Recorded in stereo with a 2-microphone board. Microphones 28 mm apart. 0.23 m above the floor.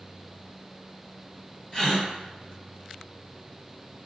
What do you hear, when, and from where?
1.7 s a gasp: 25° left (ahead or behind), 1.8 m